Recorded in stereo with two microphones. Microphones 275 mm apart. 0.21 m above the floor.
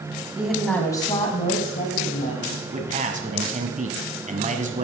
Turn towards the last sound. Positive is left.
turn(degrees=-25)  # may be behind; listen again after turning